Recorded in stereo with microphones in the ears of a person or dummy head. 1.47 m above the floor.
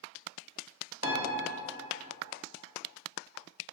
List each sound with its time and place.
1.0 s a piano: 60° right (ahead or behind), 1.3 m